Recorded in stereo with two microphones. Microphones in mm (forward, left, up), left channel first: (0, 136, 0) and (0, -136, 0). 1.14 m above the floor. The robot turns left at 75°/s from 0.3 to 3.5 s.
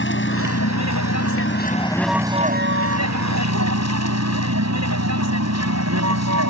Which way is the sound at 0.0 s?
135° left.